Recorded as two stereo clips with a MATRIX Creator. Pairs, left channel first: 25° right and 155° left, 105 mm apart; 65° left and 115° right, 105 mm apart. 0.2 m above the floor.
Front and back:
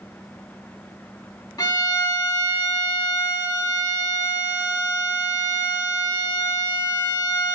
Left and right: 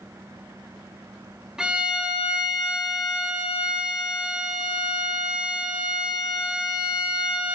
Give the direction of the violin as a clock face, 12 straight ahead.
1 o'clock.